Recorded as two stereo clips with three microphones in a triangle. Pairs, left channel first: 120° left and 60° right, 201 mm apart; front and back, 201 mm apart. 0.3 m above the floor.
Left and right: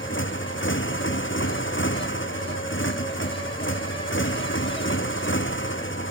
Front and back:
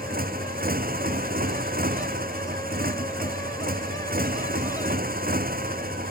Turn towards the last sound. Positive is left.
turn(degrees=135)